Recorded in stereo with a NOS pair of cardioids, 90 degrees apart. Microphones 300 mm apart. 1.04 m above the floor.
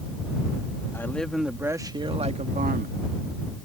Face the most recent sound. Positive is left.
turn(degrees=-35)